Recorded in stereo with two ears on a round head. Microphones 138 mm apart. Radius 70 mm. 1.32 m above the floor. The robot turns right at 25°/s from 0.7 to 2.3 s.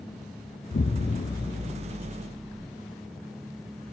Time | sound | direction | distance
0.7 | an explosion | 110° left | 0.6 m